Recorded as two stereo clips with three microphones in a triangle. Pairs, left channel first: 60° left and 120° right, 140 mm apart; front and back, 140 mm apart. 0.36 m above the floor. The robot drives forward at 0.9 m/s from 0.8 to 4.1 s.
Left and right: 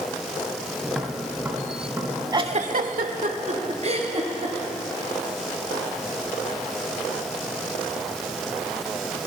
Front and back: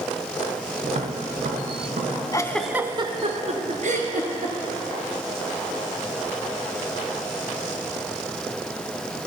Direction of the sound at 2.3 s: 60° right.